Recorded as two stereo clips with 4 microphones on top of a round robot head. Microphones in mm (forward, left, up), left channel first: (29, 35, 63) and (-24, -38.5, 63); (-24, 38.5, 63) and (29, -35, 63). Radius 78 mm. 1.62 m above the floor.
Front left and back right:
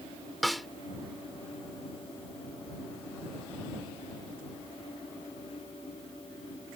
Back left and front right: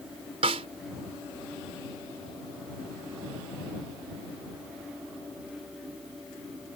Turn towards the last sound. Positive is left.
turn(degrees=-35)